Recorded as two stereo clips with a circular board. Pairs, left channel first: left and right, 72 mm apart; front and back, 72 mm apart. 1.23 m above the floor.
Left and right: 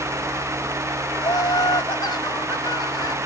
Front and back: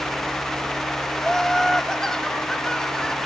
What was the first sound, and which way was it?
Laughter, 80° left.